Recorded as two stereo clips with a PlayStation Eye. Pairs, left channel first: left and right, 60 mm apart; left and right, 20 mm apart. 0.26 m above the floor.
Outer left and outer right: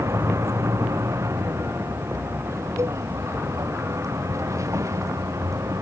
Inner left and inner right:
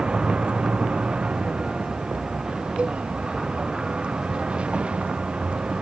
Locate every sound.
0.0 s a vehicle: 60° right (ahead or behind); by 5.8 s 70° right (ahead or behind)
2.8 s a cowbell: 70° right (ahead or behind)